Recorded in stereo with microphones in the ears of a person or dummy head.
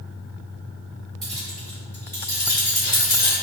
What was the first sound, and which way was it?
Keys jangling, centre (ahead or behind).